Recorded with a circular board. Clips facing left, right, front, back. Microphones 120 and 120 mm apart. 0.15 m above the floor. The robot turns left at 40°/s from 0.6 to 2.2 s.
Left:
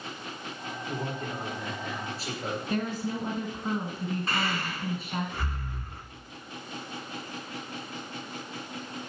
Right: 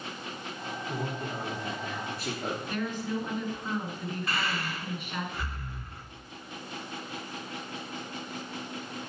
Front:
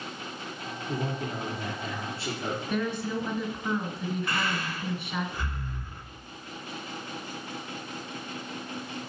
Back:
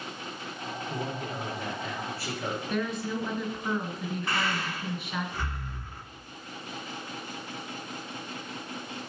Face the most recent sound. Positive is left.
turn(degrees=130)